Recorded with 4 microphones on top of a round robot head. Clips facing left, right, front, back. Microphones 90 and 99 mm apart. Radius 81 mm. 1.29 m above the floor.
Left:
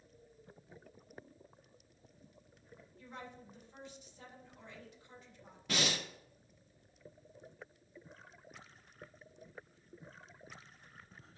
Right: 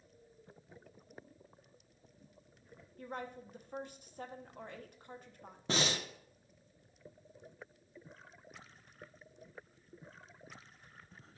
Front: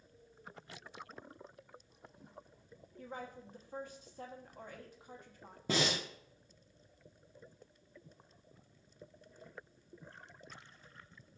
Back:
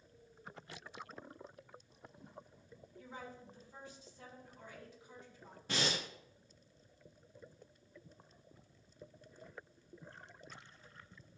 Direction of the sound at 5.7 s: 30° right.